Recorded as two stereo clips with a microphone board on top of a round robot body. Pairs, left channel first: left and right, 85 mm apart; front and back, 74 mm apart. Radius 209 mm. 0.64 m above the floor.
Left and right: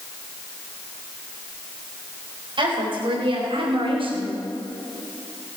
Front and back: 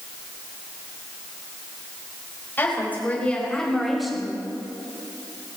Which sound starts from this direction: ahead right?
A woman speaking, at 2.6 s.